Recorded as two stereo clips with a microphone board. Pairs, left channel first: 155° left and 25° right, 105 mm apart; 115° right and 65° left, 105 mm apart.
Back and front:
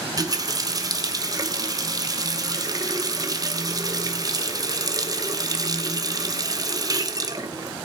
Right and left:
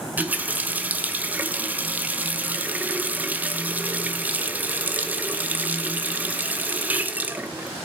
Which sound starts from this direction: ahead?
A running tap, at 0.2 s.